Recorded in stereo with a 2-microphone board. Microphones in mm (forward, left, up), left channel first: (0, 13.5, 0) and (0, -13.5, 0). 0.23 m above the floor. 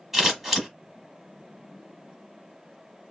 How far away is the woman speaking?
I don't hear a woman speaking.